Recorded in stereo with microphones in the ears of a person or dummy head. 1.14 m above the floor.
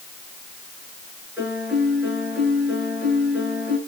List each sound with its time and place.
1.4 s a piano: 10° right (ahead or behind), 8 m